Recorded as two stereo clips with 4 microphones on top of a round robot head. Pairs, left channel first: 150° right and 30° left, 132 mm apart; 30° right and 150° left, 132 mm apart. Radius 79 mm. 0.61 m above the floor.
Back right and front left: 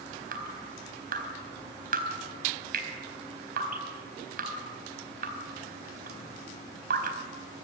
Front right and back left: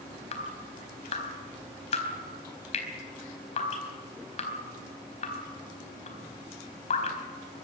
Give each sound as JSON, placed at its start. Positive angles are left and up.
{"t": 0.3, "sound": "dripping", "azimuth_deg": 10, "distance_m": 4.0}